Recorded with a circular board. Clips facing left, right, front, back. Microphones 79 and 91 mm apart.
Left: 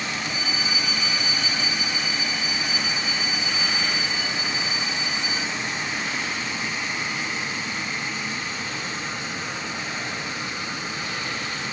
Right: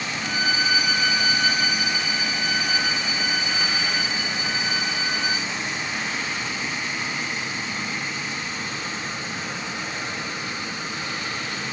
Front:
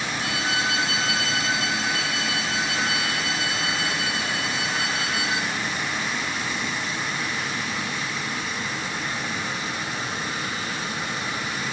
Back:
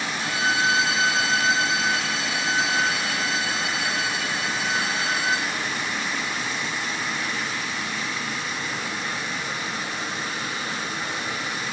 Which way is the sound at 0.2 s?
125° right.